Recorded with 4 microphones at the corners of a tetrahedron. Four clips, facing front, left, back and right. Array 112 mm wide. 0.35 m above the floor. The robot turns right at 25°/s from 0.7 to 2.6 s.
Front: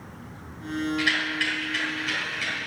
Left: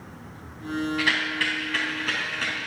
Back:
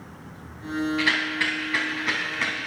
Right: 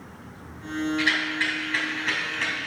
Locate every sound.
1.0 s a rattle: 140° left, 3.5 m; by 2.7 s straight behind, 3.5 m